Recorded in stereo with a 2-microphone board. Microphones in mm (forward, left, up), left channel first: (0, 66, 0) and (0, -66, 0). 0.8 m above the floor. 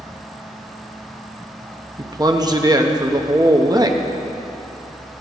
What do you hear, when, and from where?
2.0 s a man speaking: 30° right (ahead or behind), 1.0 m